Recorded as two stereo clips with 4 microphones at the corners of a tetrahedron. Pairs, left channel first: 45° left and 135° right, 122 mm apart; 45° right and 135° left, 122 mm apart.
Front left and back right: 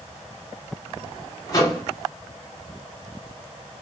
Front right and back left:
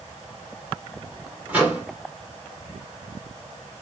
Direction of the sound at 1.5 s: 70° left.